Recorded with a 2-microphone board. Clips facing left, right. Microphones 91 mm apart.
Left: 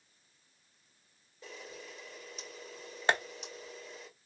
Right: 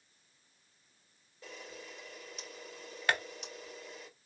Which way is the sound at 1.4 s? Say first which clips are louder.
Left 1 dB; centre (ahead or behind).